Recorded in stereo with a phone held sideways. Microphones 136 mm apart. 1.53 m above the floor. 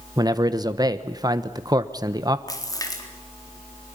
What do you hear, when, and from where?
0.2 s a man speaking: 30° right (ahead or behind), 1.2 m
2.5 s a splash: 25° left (ahead or behind), 4 m